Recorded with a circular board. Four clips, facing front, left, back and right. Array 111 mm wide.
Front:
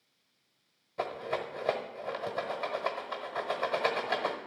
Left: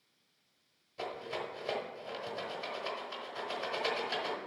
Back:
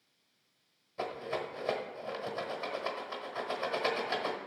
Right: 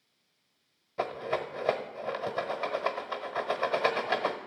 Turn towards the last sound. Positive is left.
turn(degrees=-70)